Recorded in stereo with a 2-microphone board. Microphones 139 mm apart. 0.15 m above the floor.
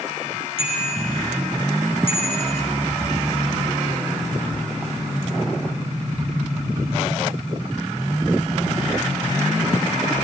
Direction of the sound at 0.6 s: 40° left (ahead or behind).